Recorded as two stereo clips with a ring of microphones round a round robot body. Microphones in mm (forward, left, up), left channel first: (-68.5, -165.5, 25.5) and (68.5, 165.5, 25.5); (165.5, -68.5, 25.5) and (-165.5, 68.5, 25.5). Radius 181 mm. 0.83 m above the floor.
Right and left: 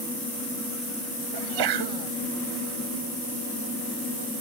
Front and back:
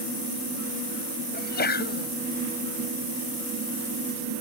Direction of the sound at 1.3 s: 45° left.